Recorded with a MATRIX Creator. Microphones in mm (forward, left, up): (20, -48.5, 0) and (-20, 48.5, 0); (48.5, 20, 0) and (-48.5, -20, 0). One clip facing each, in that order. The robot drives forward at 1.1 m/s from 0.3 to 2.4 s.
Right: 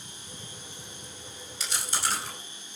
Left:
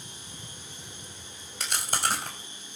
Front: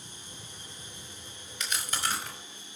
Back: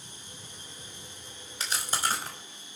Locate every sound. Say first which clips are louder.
1.6 s chewing: left 3 dB, back 2 dB; 145° left, 4.5 m; by 2.4 s 150° left, 5 m